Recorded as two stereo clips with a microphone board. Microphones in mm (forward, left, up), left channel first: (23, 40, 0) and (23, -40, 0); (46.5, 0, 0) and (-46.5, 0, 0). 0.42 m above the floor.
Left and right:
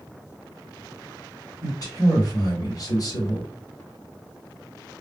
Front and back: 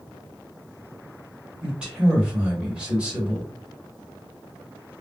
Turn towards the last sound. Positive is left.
turn(degrees=105)